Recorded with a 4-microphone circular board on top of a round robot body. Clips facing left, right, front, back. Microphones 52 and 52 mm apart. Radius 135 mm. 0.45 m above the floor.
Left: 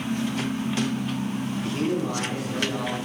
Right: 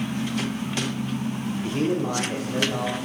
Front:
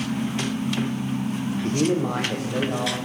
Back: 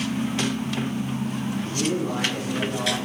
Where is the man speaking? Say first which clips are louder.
Right 2 dB, front 5 dB; 15° right, 1.4 m; by 3.0 s 25° right, 3 m.